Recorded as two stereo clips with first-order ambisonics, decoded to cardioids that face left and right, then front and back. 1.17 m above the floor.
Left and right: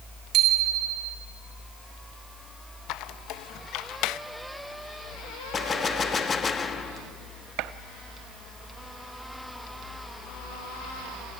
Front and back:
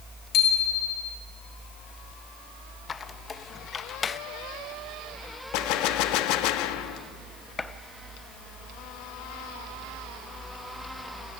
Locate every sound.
0.3 s a bicycle bell: 50° right, 3 m
2.9 s a squeak: 70° left, 0.5 m
5.5 s a gunshot: 20° left, 1.0 m
7.6 s a gunshot: 75° right, 0.6 m